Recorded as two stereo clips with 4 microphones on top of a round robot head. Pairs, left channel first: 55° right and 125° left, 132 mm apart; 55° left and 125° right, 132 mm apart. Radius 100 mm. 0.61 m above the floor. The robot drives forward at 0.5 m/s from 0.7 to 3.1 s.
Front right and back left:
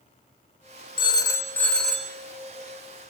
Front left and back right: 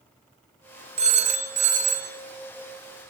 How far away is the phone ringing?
About 0.5 m.